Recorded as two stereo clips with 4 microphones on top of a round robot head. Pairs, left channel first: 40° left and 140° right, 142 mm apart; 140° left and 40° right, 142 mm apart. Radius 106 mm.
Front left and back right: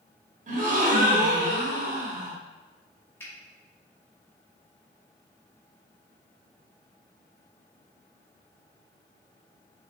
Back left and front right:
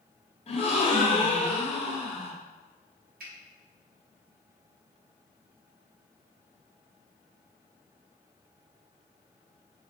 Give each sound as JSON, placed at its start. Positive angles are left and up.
{"t": 0.5, "sound": "a gasp", "azimuth_deg": -170, "distance_m": 1.1}
{"t": 3.2, "sound": "a finger snap", "azimuth_deg": -35, "distance_m": 1.5}